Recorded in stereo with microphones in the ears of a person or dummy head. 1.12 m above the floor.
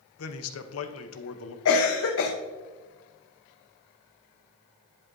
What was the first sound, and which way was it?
A man speaking, 75° left (ahead or behind).